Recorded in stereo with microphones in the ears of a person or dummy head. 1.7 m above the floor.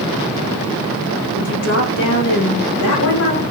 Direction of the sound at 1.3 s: 70° left (ahead or behind).